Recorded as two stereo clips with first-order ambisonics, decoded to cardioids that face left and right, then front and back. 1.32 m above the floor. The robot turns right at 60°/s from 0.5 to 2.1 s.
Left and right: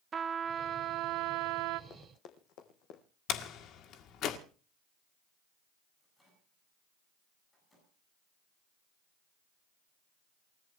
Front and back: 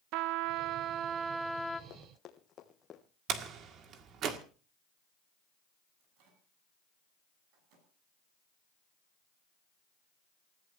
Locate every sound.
0.1 s a trumpet: 155° right, 0.9 m; by 1.8 s 80° right, 0.9 m
1.9 s running footsteps: 40° left, 2.5 m; by 3.0 s 65° left, 3 m
3.3 s a door slam: 135° left, 1.8 m
6.0 s a microwave: 165° left, 8 m